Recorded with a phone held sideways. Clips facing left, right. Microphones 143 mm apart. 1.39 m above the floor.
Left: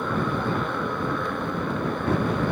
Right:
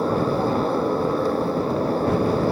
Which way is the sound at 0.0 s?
35° right (ahead or behind).